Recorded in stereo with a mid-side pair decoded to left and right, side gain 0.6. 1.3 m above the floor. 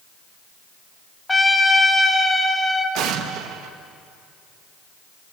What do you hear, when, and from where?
1.3 s a trumpet: 10° left, 2.5 m
3.0 s an explosion: 65° right, 1.4 m